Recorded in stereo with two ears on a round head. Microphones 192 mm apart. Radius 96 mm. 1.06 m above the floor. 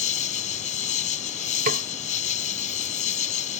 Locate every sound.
0.0 s an insect: 35° left (ahead or behind)
1.7 s a snare drum: 45° right (ahead or behind)